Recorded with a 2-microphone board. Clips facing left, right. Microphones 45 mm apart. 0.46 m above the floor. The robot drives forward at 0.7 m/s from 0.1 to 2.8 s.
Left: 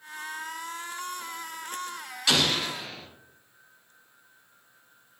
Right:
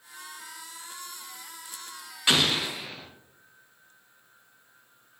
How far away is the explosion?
About 0.8 m.